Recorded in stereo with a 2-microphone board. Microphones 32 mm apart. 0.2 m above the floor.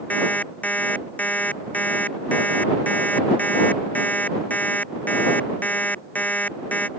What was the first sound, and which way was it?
An alarm clock, 50° left (ahead or behind).